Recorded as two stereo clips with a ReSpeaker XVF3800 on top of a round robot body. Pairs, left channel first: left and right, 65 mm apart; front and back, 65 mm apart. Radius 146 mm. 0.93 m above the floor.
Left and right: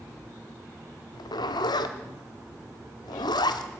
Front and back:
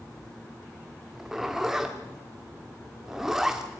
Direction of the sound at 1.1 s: 95° left.